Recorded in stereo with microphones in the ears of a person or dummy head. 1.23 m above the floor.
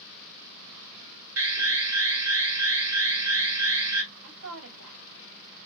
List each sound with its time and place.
1.4 s an alarm: 15° right (ahead or behind), 1.0 m
4.2 s a woman speaking: 90° right, 2.5 m